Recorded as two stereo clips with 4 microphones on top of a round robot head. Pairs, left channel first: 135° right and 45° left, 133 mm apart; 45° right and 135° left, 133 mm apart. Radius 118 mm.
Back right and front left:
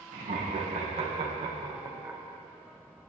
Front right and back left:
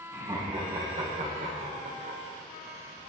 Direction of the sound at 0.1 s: 75° left.